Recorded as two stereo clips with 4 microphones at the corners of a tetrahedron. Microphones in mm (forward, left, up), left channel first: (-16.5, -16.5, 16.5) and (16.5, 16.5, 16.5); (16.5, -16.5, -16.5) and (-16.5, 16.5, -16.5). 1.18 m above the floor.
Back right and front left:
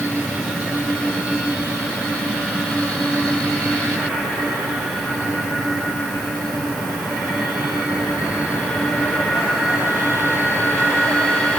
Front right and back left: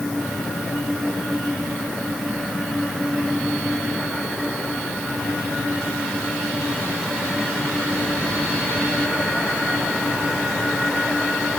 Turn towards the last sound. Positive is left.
No sound to turn to.